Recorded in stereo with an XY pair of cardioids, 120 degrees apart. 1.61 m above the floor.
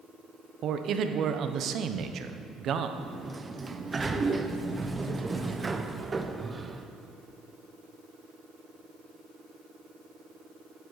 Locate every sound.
0.6 s a man speaking: 55° right, 0.9 m
3.0 s a sliding door: 20° right, 0.7 m